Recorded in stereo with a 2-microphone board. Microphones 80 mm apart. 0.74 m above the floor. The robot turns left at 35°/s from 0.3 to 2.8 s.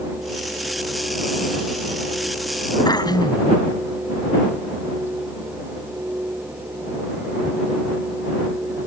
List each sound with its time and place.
2.9 s throat clearing: 60° left (ahead or behind)